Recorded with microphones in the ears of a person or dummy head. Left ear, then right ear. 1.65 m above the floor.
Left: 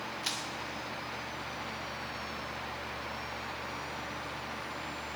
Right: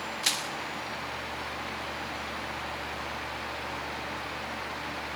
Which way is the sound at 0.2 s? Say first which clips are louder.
Right 8 dB; 20° right (ahead or behind).